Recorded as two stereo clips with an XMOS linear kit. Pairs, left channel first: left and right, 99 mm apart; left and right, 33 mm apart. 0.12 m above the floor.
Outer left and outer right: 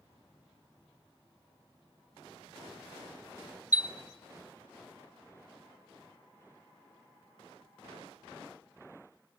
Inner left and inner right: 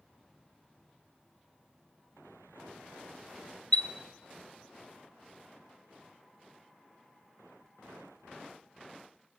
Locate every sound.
3.7 s a chime: 35° left (ahead or behind), 0.5 m